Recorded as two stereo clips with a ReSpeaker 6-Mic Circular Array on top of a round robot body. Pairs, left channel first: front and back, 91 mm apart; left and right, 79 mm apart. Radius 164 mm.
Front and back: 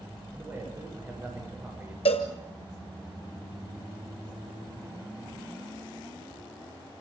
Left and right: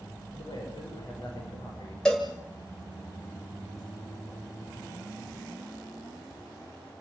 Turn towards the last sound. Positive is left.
turn(degrees=5)